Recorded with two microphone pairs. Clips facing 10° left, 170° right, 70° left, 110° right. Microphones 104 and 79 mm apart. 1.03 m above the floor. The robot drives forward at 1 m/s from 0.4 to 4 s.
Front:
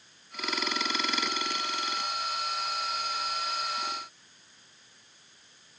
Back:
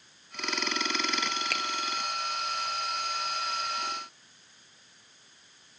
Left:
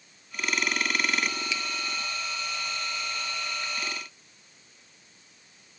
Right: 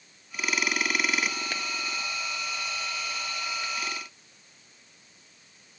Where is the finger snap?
150° right.